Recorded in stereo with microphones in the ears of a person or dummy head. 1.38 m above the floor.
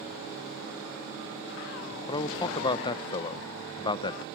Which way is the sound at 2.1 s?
25° left (ahead or behind).